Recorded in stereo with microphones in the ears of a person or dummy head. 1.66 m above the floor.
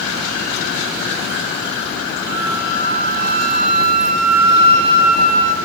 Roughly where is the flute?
Right.